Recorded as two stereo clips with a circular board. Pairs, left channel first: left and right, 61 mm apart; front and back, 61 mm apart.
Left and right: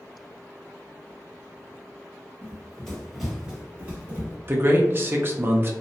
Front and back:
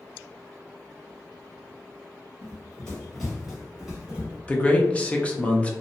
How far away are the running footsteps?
About 1.3 m.